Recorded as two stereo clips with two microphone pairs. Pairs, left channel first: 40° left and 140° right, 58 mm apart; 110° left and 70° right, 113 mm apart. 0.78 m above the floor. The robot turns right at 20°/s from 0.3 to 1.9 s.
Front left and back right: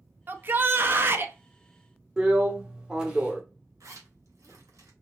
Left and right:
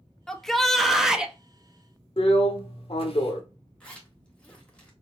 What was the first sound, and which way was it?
A shout, 170° right.